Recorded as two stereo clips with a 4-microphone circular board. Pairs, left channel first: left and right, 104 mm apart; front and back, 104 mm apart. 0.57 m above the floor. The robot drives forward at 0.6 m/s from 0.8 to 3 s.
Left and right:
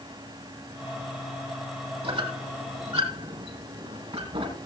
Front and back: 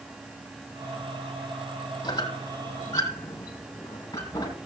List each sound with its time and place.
2.0 s a squeak: 55° right, 4.5 m; by 4.6 s 60° right, 4.5 m